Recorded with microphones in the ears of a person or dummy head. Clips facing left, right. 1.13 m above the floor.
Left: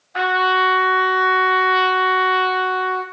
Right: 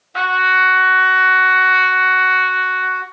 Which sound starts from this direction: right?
A trumpet, at 0.1 s.